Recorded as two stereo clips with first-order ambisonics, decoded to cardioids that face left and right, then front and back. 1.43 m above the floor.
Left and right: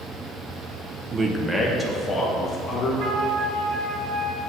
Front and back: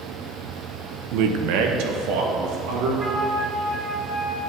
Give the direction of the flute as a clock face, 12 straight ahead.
4 o'clock.